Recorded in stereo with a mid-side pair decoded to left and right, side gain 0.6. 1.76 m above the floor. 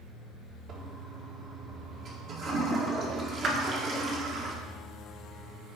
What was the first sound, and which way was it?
A toilet flushing, 50° right.